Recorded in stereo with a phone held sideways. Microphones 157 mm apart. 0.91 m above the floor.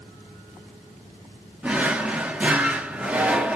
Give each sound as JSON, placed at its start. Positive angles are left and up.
{"t": 1.6, "sound": "a drawer", "side_deg": -10, "distance_m": 0.5}